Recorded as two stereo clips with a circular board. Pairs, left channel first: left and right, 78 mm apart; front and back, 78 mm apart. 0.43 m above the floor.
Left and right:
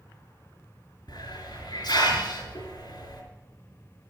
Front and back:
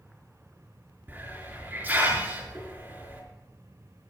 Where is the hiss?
115° left, 4 m.